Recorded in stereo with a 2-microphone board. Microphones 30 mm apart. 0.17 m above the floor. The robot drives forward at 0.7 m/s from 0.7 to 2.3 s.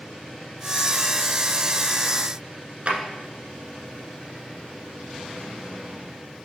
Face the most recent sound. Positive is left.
turn(degrees=-35)  # may be behind; listen again after turning